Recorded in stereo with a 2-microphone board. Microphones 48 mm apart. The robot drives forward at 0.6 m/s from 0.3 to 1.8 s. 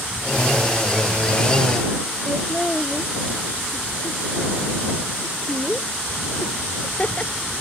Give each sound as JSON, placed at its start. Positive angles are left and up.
{"t": 2.3, "sound": "laughter", "side_deg": 30}